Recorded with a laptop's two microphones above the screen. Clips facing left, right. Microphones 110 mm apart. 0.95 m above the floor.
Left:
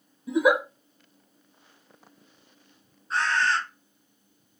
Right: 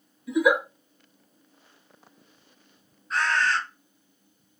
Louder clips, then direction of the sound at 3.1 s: Even; 25° left (ahead or behind).